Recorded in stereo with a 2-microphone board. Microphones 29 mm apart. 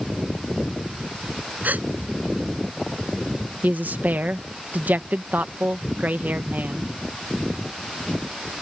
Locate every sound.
1.6 s a gasp: 70° right (ahead or behind)
3.6 s a woman speaking: 80° right